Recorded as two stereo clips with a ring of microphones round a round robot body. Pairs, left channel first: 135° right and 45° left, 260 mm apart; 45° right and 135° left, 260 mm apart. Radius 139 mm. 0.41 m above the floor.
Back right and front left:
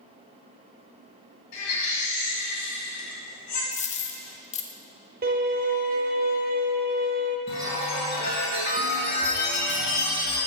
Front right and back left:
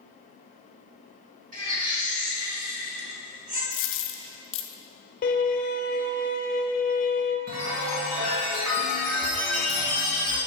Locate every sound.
1.5 s a baby crying: 165° right, 2.5 m
3.7 s a dropped coin: 75° right, 0.6 m
5.2 s a violin: straight ahead, 0.8 m
7.5 s a chime: 170° left, 1.9 m